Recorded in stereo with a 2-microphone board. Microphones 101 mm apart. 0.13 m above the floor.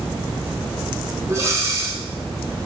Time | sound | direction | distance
1.3 | breathing | 30° right (ahead or behind) | 0.9 m